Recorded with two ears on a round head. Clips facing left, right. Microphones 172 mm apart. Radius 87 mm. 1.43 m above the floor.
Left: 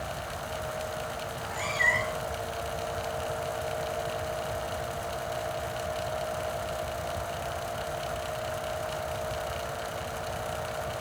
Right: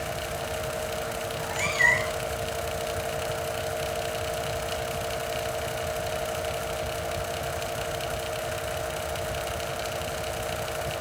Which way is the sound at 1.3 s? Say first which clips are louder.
Right 4 dB; 35° right (ahead or behind).